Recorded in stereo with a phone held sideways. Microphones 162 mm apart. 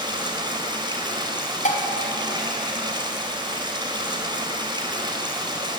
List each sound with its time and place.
0.0 s running water: 25° right (ahead or behind), 3.5 m
1.6 s dishes clattering: 50° left (ahead or behind), 3 m